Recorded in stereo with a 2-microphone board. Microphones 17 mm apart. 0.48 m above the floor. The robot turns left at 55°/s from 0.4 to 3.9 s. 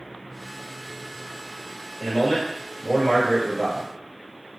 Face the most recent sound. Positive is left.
turn(degrees=-10)